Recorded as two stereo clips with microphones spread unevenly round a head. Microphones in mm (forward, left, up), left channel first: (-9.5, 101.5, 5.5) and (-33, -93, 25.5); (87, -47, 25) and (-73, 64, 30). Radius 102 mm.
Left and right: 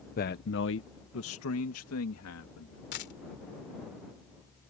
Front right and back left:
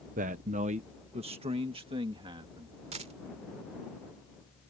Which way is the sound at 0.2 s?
115° left.